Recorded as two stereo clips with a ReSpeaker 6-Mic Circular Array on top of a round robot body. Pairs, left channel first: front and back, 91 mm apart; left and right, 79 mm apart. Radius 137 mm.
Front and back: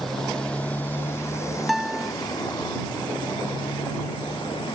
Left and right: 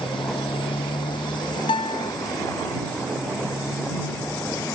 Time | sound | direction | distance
0.0 | a motorcycle | 90° left | ?
1.7 | a guitar | 90° left | ?